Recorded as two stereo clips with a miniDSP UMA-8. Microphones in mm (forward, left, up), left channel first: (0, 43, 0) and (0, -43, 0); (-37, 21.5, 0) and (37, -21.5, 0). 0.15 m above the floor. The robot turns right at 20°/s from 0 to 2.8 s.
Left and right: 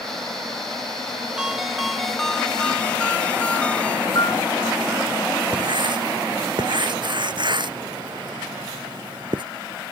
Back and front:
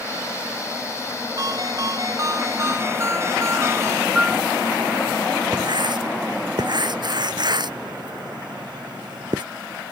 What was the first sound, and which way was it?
A ringtone, 10° right.